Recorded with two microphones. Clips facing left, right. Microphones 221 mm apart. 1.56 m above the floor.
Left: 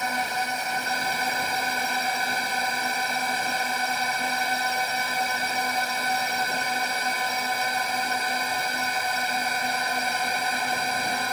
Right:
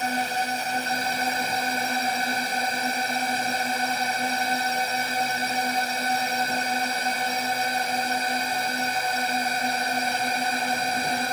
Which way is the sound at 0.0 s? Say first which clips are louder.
Right 2 dB; 30° right (ahead or behind).